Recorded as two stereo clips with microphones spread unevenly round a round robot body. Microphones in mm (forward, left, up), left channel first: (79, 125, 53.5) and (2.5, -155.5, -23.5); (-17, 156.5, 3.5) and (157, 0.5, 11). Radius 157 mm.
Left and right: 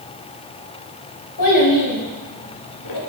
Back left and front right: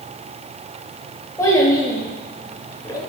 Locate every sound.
1.4 s a child speaking: 60° left, 7 m; by 3.0 s 65° left, 5 m